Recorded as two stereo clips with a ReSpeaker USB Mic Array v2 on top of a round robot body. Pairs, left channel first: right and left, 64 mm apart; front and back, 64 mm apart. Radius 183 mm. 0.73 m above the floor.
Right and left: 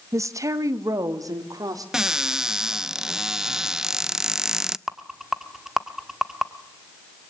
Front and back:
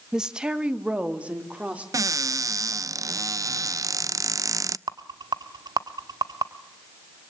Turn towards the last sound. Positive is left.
turn(degrees=175)